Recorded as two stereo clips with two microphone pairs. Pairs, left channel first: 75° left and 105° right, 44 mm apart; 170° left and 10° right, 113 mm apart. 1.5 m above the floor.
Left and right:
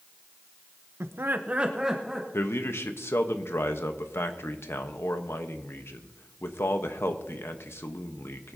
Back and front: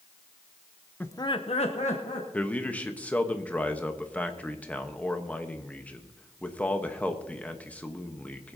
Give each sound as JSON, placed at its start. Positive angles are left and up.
{"t": 1.0, "sound": "laughter", "azimuth_deg": -115, "distance_m": 0.6}
{"t": 2.3, "sound": "a man speaking", "azimuth_deg": 90, "distance_m": 1.1}